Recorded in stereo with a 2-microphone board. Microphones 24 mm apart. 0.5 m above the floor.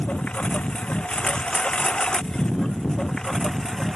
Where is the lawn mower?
55° left (ahead or behind); by 4.0 s 25° left (ahead or behind).